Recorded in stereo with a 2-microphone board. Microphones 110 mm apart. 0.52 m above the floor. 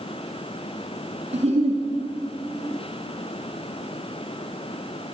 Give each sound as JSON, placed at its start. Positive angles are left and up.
{"t": 1.3, "sound": "a giggle", "side_deg": -80, "distance_m": 4.0}